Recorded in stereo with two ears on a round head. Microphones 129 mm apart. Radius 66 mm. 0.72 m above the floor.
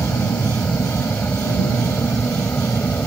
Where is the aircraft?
15° left (ahead or behind); by 3.1 s 10° left (ahead or behind).